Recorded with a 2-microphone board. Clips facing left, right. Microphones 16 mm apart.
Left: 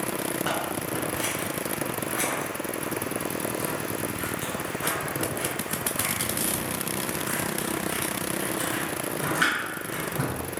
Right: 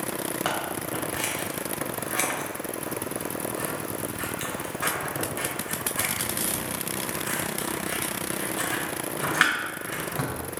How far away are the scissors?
About 2.5 m.